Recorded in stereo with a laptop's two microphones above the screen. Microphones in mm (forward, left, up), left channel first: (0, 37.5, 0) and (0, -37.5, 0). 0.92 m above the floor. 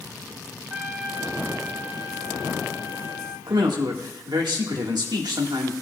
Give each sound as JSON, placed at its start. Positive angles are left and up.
{"t": 0.7, "sound": "a trumpet", "side_deg": -20, "distance_m": 1.1}
{"t": 3.5, "sound": "a man speaking", "side_deg": -70, "distance_m": 1.6}